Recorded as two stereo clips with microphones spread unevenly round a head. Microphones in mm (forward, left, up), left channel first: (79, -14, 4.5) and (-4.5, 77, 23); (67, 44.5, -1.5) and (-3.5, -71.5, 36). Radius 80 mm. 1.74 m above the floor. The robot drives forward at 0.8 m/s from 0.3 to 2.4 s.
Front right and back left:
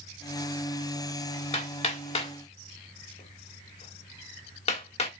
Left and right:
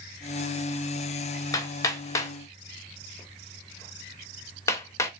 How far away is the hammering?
About 2.5 m.